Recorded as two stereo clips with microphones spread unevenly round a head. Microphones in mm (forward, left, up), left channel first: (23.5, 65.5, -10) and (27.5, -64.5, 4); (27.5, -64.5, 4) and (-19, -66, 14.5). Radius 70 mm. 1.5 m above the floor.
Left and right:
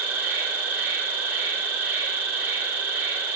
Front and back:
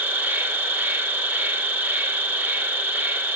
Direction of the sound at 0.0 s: 165° right.